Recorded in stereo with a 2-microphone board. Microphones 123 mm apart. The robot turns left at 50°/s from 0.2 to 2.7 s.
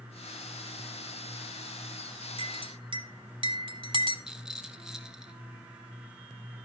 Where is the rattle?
5° right (ahead or behind), 1.0 m.